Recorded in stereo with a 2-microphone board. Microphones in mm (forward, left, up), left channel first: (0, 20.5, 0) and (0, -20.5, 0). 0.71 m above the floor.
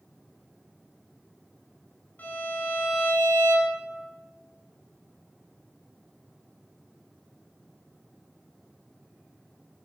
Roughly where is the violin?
Left.